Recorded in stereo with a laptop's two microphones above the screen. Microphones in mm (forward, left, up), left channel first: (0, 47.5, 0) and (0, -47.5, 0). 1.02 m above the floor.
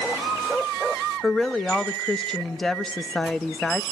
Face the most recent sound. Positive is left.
turn(degrees=5)  # may be behind; listen again after turning